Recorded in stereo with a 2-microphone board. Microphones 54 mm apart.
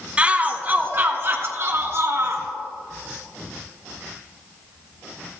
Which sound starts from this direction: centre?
A shout, at 0.2 s.